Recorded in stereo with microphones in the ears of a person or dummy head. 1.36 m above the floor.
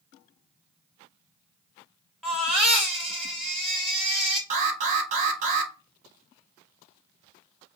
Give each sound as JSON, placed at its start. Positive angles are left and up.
{"t": 2.2, "sound": "a baby crying", "side_deg": 0, "distance_m": 0.8}
{"t": 4.5, "sound": "an alarm", "side_deg": -40, "distance_m": 0.7}